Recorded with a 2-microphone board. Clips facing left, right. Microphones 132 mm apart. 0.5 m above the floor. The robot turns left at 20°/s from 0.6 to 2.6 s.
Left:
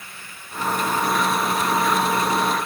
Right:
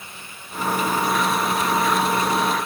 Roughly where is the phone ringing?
No phone ringing in this recording.